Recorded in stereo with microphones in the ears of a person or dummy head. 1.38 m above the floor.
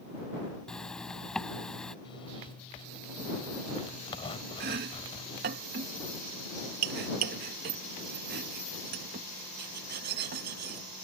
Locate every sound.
0.7 s a zipper: 5° left (ahead or behind)
2.0 s a zipper: 30° left (ahead or behind)
4.6 s chopping: 55° right (ahead or behind)